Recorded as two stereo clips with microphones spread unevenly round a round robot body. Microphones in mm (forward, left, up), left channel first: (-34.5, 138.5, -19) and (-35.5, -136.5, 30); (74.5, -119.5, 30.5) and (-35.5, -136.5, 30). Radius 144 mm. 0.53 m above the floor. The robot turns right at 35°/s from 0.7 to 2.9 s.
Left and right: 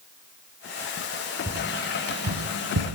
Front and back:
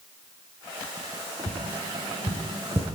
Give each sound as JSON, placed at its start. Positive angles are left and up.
{"t": 1.5, "sound": "tapping", "azimuth_deg": -170, "distance_m": 4.5}